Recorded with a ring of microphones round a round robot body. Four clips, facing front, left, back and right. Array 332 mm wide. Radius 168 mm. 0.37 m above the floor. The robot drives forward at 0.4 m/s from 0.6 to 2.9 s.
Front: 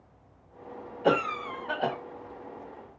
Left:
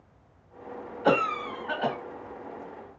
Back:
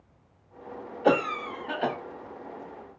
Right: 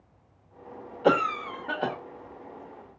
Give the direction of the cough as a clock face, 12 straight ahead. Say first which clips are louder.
Right 1 dB, back 2 dB; 3 o'clock.